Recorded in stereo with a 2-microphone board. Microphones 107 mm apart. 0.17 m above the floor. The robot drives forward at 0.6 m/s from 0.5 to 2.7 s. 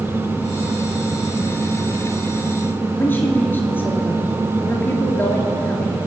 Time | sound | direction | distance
3.0 | a woman speaking | 20° left (ahead or behind) | 3 m